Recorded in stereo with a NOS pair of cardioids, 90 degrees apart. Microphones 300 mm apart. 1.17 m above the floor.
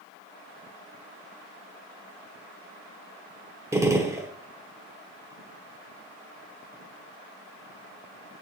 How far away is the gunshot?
About 0.8 m.